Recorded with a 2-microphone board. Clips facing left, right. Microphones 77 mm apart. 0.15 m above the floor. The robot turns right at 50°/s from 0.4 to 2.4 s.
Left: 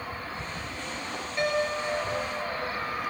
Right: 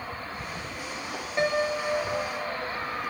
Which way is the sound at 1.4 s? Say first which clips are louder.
Right 2 dB; 155° right.